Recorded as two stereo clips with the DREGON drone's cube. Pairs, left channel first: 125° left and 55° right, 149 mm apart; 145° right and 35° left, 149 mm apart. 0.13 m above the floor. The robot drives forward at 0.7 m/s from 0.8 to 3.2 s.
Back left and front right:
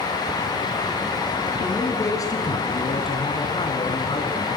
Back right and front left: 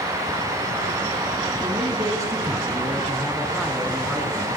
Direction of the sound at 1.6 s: 60° left.